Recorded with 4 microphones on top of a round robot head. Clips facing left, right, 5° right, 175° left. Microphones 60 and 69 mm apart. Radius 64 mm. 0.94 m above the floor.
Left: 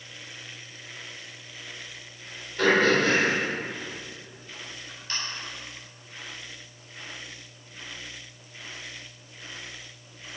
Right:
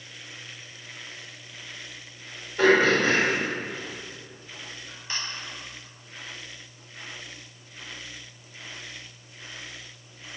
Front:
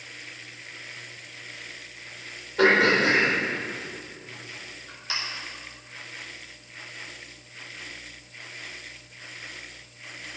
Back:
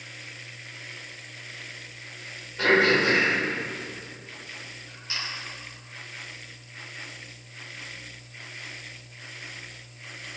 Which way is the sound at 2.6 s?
10° right.